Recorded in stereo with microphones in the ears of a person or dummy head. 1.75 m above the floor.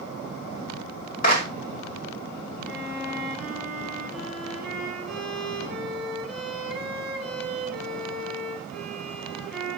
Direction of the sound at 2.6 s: Centre (ahead or behind).